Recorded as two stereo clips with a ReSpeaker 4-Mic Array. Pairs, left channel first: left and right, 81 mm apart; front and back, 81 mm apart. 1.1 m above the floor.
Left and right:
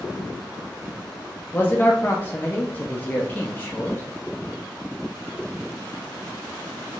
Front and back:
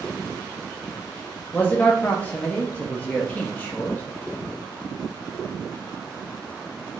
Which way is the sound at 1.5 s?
50° left.